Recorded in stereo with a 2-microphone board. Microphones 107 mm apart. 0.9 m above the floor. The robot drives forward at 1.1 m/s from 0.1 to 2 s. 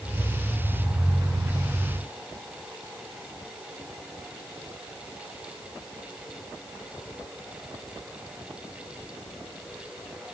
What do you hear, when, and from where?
Only background noise.